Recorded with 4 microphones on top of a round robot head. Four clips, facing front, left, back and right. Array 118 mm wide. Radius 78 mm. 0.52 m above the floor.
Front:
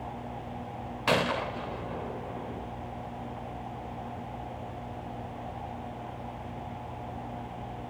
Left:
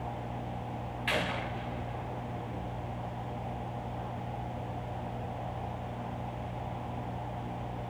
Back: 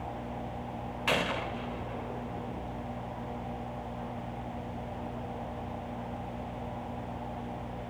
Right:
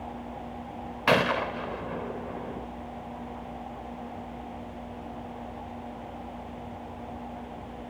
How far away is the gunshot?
About 1.2 m.